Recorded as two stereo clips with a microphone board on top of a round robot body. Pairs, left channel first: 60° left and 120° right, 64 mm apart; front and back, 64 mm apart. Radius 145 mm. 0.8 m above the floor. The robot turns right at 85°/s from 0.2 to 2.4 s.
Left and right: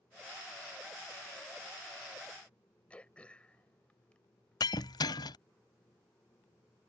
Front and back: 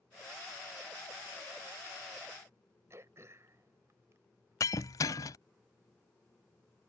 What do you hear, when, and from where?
2.9 s throat clearing: 130° left
4.6 s breaking glass: 40° left